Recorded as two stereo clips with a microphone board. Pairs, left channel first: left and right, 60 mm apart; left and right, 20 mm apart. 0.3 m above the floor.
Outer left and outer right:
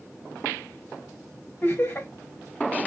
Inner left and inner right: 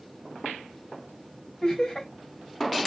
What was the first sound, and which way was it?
Laughter, 30° left (ahead or behind).